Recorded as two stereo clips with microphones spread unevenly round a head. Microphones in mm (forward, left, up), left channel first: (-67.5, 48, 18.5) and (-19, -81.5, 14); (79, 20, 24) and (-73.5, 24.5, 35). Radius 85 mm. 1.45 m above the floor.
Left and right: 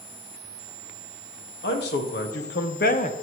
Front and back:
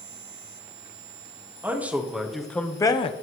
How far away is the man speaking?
About 1.9 m.